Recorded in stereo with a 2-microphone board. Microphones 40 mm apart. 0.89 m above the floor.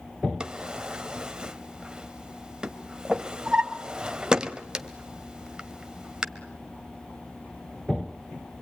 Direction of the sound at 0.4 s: 20° right (ahead or behind).